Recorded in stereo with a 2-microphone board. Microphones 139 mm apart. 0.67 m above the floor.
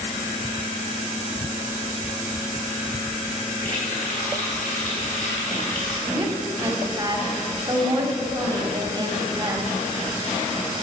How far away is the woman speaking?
About 1.8 m.